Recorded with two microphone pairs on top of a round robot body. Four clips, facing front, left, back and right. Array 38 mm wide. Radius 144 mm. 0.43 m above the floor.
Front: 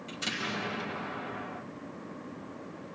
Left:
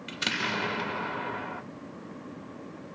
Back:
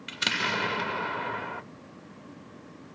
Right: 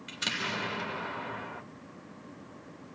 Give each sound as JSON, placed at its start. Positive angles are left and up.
{"t": 0.1, "sound": "an explosion", "azimuth_deg": 145, "distance_m": 1.5}